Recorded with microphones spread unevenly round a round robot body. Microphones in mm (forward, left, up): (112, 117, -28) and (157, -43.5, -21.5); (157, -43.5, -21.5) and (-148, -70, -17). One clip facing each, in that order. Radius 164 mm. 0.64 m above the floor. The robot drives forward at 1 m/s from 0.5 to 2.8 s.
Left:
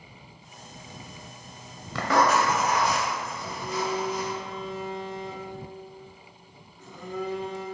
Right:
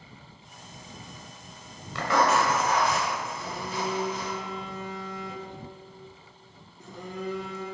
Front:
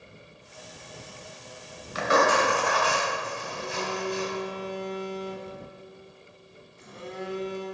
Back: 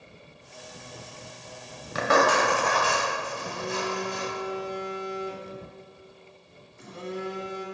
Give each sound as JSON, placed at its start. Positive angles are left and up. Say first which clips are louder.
{"t": 1.9, "sound": "writing", "louder": "left 1 dB, even", "azimuth_deg": 135, "distance_m": 1.0}
{"t": 3.4, "sound": "a phone buzzing", "louder": "left 2 dB, back 2 dB", "azimuth_deg": -160, "distance_m": 1.3}